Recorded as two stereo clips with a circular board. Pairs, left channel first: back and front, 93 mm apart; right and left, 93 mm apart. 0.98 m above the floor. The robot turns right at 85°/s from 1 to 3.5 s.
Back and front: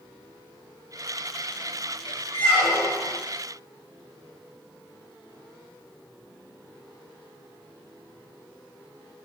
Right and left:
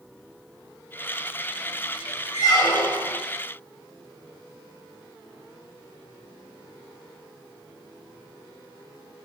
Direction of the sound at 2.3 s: 125° right.